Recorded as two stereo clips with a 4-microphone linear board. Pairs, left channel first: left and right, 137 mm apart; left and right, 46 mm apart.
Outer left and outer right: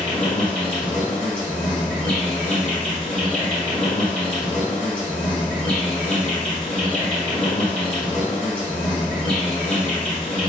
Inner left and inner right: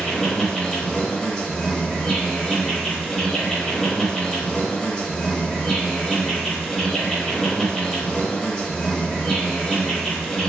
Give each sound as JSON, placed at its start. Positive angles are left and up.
{"t": 0.0, "sound": "an insect", "side_deg": 5, "distance_m": 1.2}